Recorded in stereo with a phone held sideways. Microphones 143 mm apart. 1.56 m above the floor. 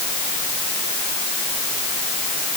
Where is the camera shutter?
I don't hear a camera shutter.